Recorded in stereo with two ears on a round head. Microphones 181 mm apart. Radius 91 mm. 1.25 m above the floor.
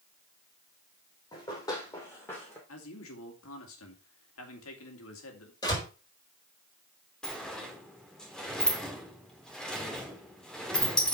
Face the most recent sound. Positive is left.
turn(degrees=5)  # may be behind; listen again after turning